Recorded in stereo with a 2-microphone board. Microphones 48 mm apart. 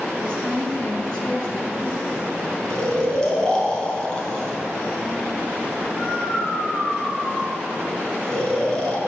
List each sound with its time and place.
0.2 s a woman speaking: 15° left (ahead or behind), 5.5 m
2.7 s snoring: 15° left (ahead or behind), 3.5 m